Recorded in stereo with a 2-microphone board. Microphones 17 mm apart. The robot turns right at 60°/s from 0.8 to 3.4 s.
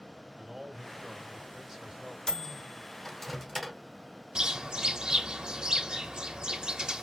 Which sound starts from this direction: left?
A microwave, at 2.3 s.